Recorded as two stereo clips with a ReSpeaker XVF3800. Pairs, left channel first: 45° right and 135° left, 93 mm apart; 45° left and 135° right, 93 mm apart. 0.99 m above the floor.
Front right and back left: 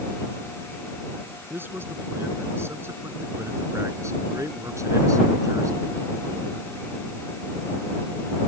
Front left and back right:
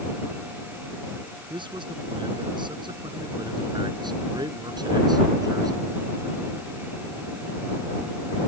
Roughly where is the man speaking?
Behind.